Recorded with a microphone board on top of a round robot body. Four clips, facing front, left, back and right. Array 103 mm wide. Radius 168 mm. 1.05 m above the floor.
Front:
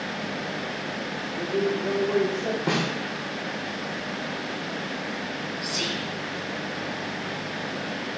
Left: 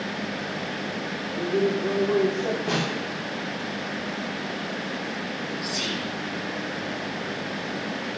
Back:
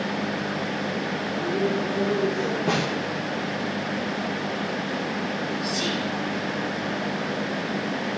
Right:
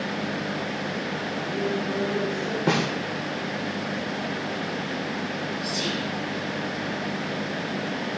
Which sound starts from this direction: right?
A snare drum, at 2.7 s.